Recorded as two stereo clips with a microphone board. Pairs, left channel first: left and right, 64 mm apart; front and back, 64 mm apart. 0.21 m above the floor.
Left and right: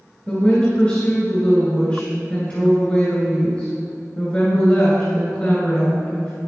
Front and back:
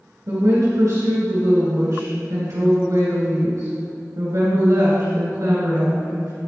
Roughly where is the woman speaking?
Behind left.